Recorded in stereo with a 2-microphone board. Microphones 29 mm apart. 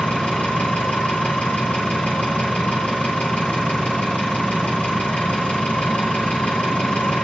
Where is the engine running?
70° left (ahead or behind), 7.5 m.